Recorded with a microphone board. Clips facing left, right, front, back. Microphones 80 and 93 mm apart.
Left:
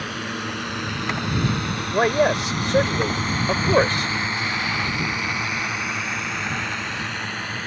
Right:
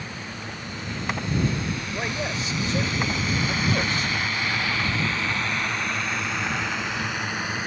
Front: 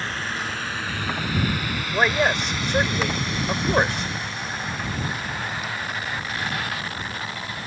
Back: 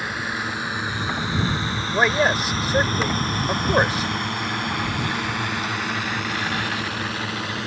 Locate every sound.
0.0 s a drone: 100° left; by 7.7 s 165° right
1.9 s a man speaking: 95° left